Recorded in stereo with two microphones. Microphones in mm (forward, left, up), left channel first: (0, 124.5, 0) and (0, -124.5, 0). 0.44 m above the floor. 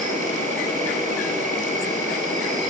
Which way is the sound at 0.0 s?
30° right (ahead or behind).